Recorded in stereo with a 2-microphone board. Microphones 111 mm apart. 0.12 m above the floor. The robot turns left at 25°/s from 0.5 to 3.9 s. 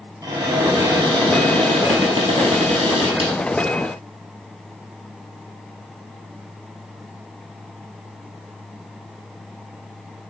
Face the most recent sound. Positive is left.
turn(degrees=-120)